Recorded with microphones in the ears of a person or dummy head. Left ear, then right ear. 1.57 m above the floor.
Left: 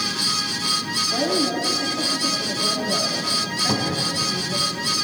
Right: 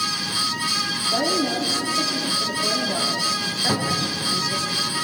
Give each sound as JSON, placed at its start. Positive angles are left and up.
{"t": 1.1, "sound": "a woman speaking", "side_deg": -30, "distance_m": 3.5}
{"t": 3.7, "sound": "a cupboard door", "side_deg": -15, "distance_m": 3.5}